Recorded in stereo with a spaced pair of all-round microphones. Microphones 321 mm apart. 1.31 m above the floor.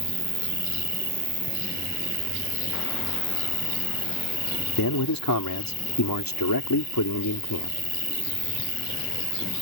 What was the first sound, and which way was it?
An insect, 85° left.